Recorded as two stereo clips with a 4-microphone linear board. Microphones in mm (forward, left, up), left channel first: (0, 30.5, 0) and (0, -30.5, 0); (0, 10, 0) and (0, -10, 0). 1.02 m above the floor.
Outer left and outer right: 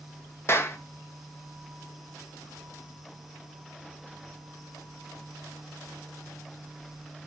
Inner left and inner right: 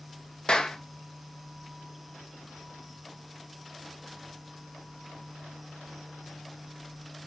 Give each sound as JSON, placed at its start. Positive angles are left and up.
{"t": 0.5, "sound": "a clap", "side_deg": 45, "distance_m": 1.0}